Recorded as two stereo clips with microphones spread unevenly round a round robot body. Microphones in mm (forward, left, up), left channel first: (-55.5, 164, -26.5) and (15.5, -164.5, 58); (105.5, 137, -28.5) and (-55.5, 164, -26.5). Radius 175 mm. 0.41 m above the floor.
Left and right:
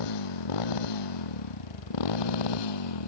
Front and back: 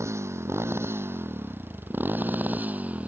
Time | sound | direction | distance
0.0 | a motorcycle | 95° left | ?